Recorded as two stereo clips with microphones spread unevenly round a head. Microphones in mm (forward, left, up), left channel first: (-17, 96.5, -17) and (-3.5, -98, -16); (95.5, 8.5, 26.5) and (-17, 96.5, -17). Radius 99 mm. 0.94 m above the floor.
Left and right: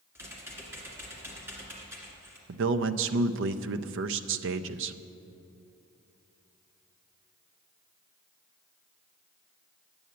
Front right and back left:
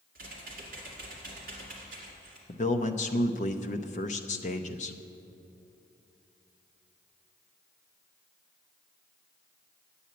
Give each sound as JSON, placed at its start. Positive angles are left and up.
{"t": 0.1, "sound": "typing on a keyboard", "azimuth_deg": -165, "distance_m": 2.0}
{"t": 2.5, "sound": "a man speaking", "azimuth_deg": -95, "distance_m": 0.5}